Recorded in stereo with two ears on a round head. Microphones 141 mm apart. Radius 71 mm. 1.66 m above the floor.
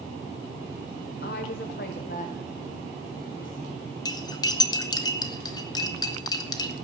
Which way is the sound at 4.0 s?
25° left (ahead or behind).